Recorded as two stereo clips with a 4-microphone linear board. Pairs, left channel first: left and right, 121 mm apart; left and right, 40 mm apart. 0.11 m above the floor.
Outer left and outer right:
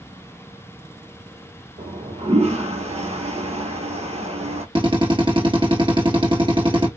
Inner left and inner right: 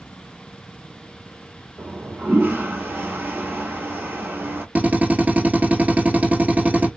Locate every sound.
1.8 s a toilet flushing: 60° right (ahead or behind), 1.0 m
4.8 s a drill: 45° right (ahead or behind), 1.1 m